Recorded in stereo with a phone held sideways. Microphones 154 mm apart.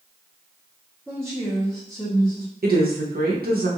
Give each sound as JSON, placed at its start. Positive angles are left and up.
{"t": 1.1, "sound": "a woman speaking", "side_deg": 5, "distance_m": 1.0}
{"t": 2.6, "sound": "a woman speaking", "side_deg": -80, "distance_m": 1.0}